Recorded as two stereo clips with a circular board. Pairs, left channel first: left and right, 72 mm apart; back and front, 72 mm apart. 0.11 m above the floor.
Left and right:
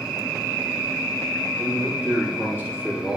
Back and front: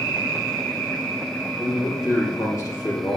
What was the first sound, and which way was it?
A man speaking, 140° left.